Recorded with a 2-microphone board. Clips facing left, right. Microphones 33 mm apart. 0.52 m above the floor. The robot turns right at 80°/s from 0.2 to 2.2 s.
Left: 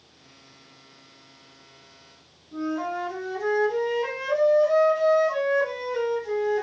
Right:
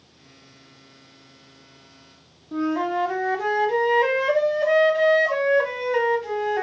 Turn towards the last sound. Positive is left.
turn(degrees=-70)  # may be behind; listen again after turning